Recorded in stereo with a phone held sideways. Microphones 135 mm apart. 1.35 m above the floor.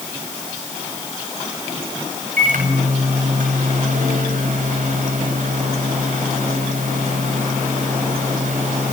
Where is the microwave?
75° right (ahead or behind), 8 m.